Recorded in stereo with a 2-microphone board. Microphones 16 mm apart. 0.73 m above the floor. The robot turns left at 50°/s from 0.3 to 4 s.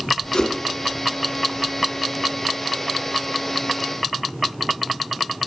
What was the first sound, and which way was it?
A whoosh, 75° left (ahead or behind).